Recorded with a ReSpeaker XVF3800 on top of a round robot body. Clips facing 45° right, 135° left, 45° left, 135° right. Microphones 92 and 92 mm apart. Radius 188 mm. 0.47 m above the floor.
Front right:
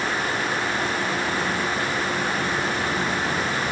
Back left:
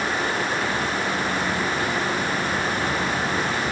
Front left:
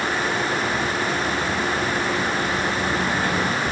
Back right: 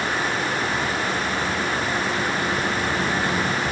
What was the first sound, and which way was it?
Only background noise.